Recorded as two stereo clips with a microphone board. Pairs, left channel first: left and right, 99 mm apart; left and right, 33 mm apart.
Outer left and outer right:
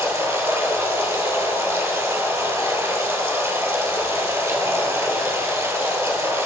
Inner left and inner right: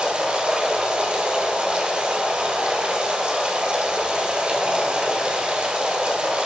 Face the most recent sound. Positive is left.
turn(degrees=-30)  # may be behind; listen again after turning